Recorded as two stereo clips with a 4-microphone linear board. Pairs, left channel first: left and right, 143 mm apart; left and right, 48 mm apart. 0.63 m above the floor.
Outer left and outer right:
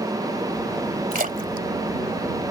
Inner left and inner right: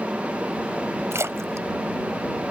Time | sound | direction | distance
1.1 | a splash | 80° right | ?